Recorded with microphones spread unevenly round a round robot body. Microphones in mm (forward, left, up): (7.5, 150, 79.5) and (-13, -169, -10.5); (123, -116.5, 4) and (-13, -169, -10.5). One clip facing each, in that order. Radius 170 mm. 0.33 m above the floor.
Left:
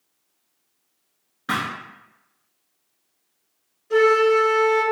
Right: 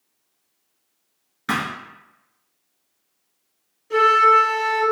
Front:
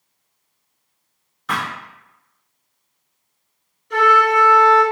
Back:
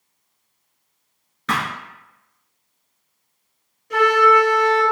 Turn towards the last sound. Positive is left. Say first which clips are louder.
# left 5 dB, back 1 dB
turn(degrees=-170)